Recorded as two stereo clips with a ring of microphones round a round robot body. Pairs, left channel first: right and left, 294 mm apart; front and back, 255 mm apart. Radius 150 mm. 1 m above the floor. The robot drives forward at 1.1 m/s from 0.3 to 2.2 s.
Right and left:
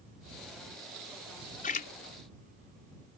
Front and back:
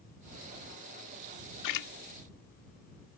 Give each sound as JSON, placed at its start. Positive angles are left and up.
{"t": 1.6, "sound": "a splash", "azimuth_deg": -25}